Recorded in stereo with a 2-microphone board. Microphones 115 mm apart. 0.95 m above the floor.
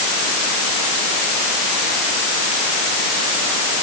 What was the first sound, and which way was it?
Only background noise.